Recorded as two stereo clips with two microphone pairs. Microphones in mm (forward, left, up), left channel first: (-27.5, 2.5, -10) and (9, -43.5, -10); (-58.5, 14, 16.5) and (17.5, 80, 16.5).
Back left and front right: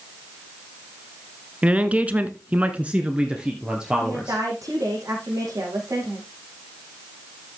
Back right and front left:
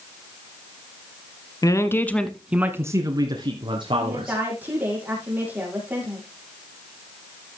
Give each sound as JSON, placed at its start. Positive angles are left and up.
{"t": 1.6, "sound": "a man speaking", "azimuth_deg": -105, "distance_m": 1.3}
{"t": 4.0, "sound": "a woman speaking", "azimuth_deg": -30, "distance_m": 6.0}